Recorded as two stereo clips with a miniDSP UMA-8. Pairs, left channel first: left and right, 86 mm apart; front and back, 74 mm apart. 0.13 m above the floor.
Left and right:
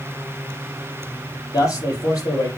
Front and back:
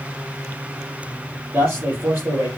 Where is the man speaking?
125° left, 3.5 m.